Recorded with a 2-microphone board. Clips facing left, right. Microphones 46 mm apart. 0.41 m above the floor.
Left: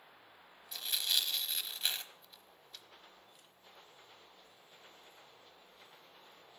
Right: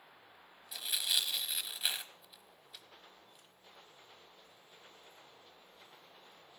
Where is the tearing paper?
5° right (ahead or behind), 0.9 m.